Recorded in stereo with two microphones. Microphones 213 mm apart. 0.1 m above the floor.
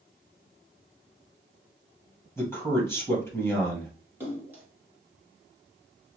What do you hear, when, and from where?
2.4 s a man speaking: 10° left (ahead or behind), 2 m
4.2 s a splash: 10° right (ahead or behind), 1.7 m